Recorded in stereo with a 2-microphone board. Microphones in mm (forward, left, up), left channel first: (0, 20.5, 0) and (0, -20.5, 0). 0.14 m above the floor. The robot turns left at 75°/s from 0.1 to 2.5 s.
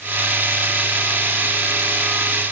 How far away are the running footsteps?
I don't hear running footsteps.